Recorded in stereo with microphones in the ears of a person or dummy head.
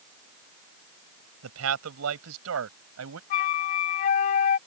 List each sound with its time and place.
1.4 s a man speaking: 90° right; by 3.2 s 85° right
3.3 s a flute: 30° left (ahead or behind)